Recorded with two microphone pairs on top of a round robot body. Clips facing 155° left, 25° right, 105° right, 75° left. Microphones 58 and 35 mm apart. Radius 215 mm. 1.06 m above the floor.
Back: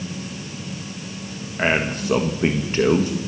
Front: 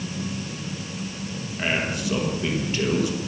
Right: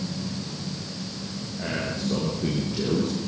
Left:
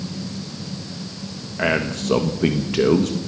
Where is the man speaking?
105° left, 1.6 m.